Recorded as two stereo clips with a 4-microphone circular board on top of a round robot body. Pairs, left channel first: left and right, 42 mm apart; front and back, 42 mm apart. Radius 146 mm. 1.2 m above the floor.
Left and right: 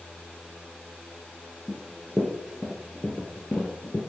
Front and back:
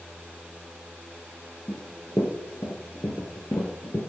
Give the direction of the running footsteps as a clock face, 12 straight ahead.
1 o'clock.